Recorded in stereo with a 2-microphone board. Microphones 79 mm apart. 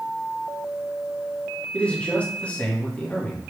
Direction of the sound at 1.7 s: 15° left (ahead or behind).